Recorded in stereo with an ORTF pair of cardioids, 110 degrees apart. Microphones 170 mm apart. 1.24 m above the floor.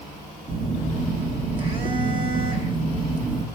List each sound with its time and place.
0.5 s a phone buzzing: 30° right, 1.3 m